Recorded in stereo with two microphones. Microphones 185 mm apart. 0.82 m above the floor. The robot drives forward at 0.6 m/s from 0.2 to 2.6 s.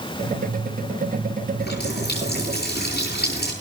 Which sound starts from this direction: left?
A running tap, at 1.6 s.